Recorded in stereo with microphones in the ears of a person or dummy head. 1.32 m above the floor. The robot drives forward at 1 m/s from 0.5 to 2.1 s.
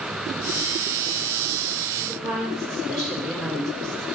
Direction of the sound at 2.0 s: 5° left (ahead or behind).